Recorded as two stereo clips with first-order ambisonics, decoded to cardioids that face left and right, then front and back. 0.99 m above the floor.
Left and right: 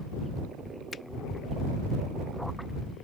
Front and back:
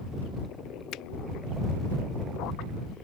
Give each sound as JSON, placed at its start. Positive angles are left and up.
{"t": 0.9, "sound": "a finger snap", "azimuth_deg": 25}